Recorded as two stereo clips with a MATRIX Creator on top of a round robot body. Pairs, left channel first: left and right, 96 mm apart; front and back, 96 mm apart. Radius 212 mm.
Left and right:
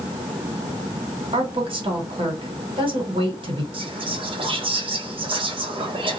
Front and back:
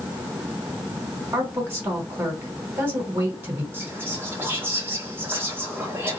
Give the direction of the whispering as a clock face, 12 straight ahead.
4 o'clock.